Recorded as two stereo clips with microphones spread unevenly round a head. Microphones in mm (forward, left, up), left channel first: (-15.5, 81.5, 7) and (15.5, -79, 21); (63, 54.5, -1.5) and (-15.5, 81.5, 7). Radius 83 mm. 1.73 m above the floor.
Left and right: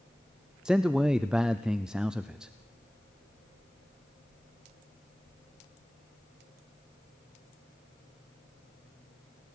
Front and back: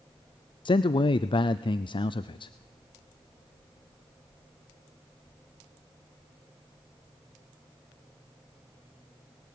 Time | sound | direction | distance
0.7 | a man speaking | 5° left | 0.6 m